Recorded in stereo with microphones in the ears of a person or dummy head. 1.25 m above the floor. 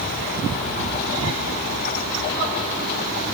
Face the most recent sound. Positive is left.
No sound to turn to.